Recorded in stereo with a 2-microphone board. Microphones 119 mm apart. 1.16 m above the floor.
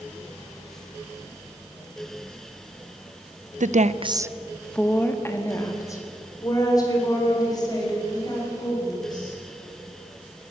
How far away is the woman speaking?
About 0.9 m.